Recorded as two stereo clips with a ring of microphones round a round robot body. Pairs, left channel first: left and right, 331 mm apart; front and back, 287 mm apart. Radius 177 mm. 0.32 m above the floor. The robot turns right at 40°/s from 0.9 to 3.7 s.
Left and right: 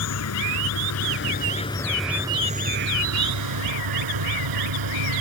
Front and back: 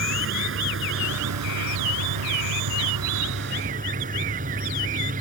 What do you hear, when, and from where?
0.0 s an insect: 135° left; by 5.2 s 115° right